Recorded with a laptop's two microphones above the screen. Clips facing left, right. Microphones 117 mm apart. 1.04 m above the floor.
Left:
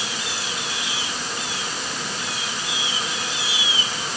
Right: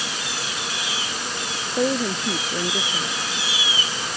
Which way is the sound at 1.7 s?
75° right (ahead or behind).